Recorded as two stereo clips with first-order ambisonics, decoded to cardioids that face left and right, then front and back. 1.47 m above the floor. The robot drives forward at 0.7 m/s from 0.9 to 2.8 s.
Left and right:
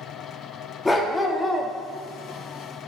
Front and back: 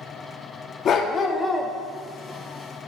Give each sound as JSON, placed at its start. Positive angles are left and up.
{"t": 0.8, "sound": "a dog barking", "azimuth_deg": 20, "distance_m": 1.0}